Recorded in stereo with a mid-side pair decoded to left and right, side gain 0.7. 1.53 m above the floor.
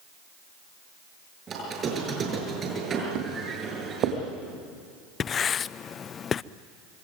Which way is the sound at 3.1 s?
55° right.